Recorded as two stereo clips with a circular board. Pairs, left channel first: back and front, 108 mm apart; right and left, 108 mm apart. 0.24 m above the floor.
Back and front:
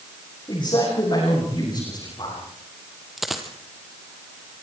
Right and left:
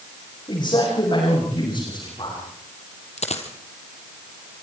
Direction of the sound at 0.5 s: 140° right.